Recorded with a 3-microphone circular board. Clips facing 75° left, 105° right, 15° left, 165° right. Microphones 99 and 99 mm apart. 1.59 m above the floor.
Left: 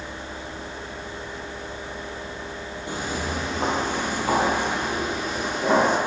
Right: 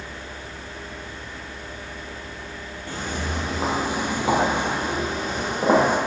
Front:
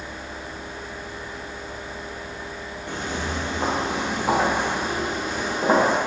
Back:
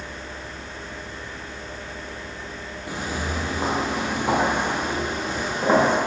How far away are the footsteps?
About 1.7 m.